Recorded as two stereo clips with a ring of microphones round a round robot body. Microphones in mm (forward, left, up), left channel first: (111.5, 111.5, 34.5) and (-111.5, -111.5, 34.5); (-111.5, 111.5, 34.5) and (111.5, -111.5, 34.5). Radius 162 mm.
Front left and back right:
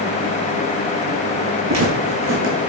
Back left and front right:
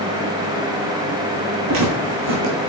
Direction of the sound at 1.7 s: 95° right.